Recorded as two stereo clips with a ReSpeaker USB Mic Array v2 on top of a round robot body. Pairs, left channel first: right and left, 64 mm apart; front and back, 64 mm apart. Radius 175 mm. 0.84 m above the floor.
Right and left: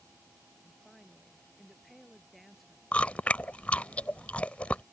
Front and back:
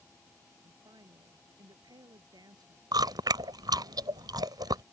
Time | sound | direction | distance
0.6 | a woman speaking | straight behind | ?
2.9 | chewing | 160° right | ?